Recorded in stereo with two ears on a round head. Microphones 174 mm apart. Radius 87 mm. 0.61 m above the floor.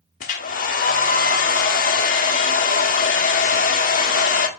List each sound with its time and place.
0.2 s a hair dryer: 45° left (ahead or behind), 1.2 m